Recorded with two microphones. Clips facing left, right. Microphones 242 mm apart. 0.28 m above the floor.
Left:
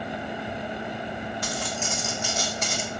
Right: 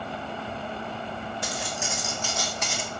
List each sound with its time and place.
1.4 s footsteps: 25° right (ahead or behind), 0.9 m; by 2.9 s 50° left (ahead or behind), 0.7 m